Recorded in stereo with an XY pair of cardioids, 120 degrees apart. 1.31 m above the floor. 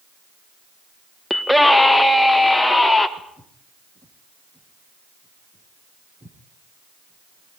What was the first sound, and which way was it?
A scream, 5° left.